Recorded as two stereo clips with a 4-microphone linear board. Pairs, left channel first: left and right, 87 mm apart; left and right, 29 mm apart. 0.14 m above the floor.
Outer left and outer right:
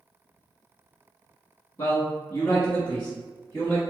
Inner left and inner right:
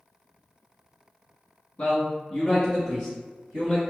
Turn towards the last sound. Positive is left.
turn(degrees=10)  # may be behind; listen again after turning